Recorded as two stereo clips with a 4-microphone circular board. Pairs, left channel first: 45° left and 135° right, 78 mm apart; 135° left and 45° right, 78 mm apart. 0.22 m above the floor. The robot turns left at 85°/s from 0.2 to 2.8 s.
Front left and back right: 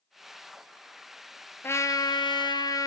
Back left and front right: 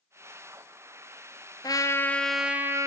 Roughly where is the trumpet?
Left.